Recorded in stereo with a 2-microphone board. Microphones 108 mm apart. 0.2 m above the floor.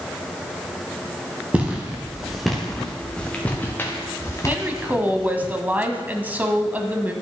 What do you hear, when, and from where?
1.5 s footsteps: 10° right (ahead or behind), 3 m; by 5.5 s 40° left (ahead or behind), 3 m
4.5 s a woman speaking: 15° right (ahead or behind), 1.0 m